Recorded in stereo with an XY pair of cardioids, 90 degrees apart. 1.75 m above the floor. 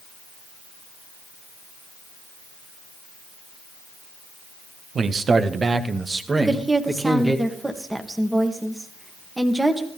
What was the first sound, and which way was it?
A man speaking, 55° right.